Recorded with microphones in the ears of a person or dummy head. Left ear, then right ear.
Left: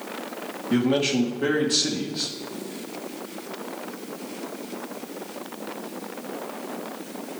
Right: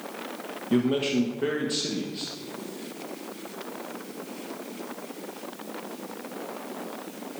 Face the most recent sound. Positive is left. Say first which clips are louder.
# left 2 dB
turn(degrees=-5)  # may be behind; listen again after turning